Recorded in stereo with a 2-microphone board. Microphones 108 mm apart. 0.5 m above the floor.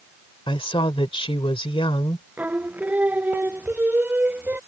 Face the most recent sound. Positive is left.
turn(degrees=-15)  # may be behind; listen again after turning